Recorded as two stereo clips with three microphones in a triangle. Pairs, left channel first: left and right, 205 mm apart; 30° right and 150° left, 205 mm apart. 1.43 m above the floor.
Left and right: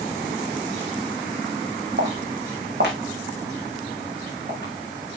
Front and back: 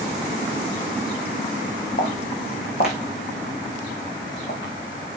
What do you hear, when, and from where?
2.0 s footsteps: 70° right, 3.5 m; by 5.2 s 50° right, 5 m